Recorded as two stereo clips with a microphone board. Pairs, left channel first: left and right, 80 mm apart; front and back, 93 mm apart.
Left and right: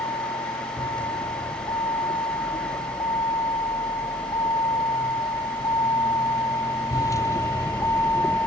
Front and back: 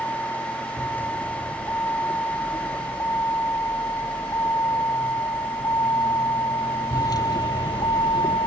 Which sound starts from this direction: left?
A vehicle, at 0.0 s.